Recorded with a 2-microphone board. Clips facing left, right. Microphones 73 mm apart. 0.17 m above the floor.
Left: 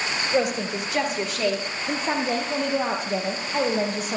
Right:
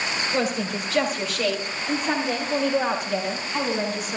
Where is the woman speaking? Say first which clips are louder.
Left 3 dB; 15° left (ahead or behind), 4.5 m; by 4.2 s 45° left (ahead or behind), 5 m.